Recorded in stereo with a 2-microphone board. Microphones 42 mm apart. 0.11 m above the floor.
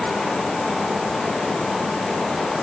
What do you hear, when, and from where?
Only background noise.